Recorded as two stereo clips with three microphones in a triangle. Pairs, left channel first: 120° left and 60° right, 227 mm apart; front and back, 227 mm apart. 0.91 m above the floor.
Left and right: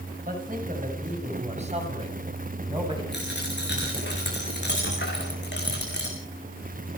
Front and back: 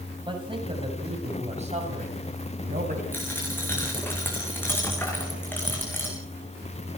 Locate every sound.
0.3 s a man speaking: 110° right, 6.5 m; by 3.0 s 130° right, 6.5 m
3.1 s a dropped coin: 80° left, 7 m